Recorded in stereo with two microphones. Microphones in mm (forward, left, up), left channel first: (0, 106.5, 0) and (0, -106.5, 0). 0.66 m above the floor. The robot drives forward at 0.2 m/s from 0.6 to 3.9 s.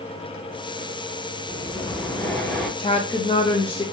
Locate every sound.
1.5 s breathing: 10° left (ahead or behind), 0.7 m; by 2.7 s 5° left (ahead or behind), 0.9 m
2.8 s a woman speaking: 25° left (ahead or behind), 0.5 m